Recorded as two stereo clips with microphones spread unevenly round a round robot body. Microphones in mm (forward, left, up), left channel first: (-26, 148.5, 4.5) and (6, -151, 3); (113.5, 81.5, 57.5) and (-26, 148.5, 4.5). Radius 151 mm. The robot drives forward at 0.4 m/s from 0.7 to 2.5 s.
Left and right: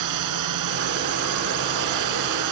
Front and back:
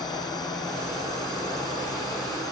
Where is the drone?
105° right.